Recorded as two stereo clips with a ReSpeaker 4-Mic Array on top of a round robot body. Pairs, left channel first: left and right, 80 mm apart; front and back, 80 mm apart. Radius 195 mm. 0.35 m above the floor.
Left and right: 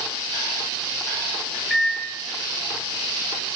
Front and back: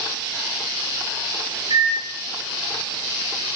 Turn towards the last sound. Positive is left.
turn(degrees=175)